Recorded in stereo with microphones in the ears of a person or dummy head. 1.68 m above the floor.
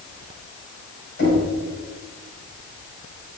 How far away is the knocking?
About 6 m.